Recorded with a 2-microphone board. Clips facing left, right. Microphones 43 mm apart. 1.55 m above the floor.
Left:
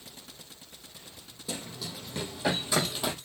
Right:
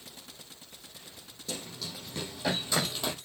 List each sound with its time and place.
1.5 s running footsteps: 10° left (ahead or behind), 5 m